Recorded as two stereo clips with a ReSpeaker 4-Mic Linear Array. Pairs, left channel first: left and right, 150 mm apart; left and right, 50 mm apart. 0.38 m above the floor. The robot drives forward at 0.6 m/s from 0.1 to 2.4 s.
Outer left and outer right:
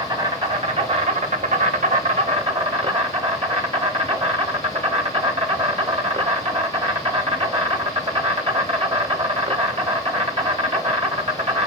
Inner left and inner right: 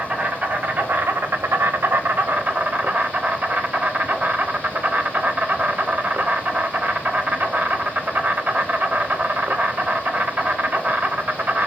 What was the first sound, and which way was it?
An insect, 30° right (ahead or behind).